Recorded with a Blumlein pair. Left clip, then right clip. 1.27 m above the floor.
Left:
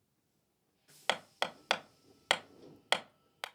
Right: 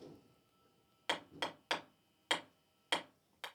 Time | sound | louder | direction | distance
1.1 | hammering | left 5 dB | 60° left | 0.7 m